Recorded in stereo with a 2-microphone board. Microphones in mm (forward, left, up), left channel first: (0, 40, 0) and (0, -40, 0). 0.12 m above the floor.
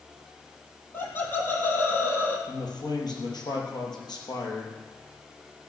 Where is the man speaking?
60° left (ahead or behind), 4 m.